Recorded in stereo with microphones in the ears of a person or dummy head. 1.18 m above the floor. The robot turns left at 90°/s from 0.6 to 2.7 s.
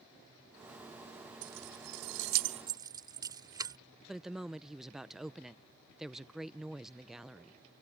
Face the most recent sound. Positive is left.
turn(degrees=0)  # may be behind; listen again after turning